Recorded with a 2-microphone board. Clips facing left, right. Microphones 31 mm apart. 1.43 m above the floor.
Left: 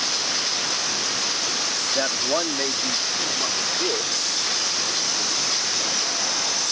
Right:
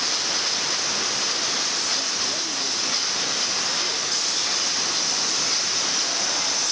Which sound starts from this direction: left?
A man speaking, at 1.9 s.